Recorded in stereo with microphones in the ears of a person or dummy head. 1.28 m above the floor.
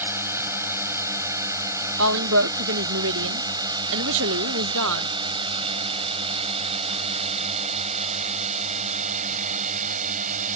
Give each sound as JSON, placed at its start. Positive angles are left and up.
{"t": 0.0, "sound": "a drone", "side_deg": -15}
{"t": 2.0, "sound": "a woman speaking", "side_deg": -70}